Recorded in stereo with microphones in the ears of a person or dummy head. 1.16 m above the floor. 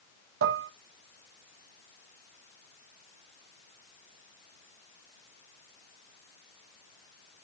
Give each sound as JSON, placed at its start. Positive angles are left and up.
{"t": 0.4, "sound": "dishes clattering", "side_deg": -65, "distance_m": 0.7}